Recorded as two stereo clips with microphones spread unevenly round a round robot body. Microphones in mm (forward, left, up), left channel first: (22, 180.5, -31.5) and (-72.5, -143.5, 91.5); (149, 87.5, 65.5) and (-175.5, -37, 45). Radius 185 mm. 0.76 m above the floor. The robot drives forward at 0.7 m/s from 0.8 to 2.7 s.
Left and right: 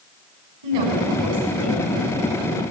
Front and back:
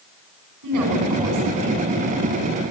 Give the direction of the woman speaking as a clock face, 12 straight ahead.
4 o'clock.